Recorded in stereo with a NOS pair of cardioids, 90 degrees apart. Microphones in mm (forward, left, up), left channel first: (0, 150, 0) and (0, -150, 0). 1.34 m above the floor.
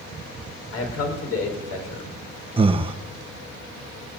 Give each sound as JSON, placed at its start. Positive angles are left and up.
{"t": 0.7, "sound": "a man speaking", "azimuth_deg": 60, "distance_m": 5.5}
{"t": 2.6, "sound": "breathing", "azimuth_deg": -20, "distance_m": 1.1}